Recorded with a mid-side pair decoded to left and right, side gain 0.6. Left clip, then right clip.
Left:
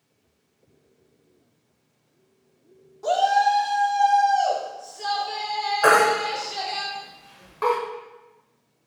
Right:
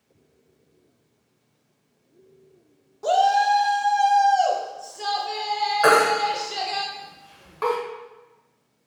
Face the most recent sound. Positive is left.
turn(degrees=-5)